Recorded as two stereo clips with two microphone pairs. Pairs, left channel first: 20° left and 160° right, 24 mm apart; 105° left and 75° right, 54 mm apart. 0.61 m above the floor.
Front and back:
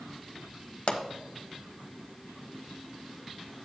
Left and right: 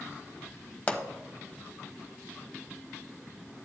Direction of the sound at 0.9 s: 50° left.